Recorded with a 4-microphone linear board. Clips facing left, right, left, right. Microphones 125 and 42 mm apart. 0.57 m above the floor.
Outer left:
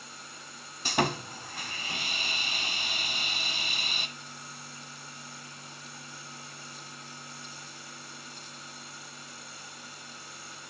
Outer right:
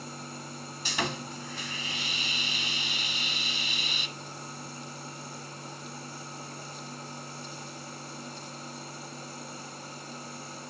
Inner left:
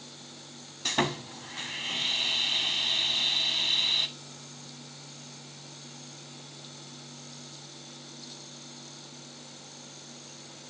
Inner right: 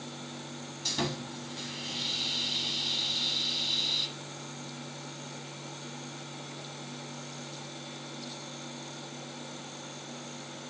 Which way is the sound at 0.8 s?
50° left (ahead or behind).